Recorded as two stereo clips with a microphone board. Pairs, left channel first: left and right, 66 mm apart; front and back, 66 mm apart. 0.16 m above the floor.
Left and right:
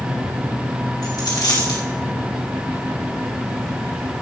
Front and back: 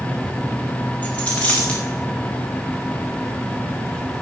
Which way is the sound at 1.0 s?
70° left.